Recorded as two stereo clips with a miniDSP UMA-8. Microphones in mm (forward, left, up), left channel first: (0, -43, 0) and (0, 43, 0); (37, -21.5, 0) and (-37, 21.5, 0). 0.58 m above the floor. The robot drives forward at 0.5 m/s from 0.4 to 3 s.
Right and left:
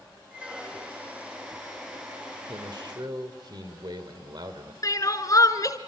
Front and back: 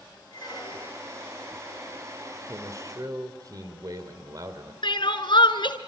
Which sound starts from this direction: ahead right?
Crying, at 4.8 s.